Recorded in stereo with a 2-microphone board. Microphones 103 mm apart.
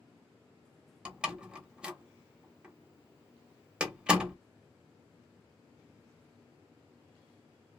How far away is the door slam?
About 0.6 m.